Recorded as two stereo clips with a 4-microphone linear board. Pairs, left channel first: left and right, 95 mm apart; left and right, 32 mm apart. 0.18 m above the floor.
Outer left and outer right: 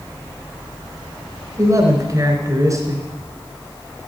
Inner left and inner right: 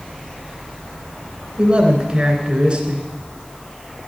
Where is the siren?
I don't hear a siren.